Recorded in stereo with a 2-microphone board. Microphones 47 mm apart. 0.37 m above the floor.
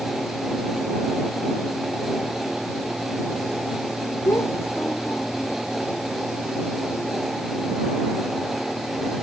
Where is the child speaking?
85° left.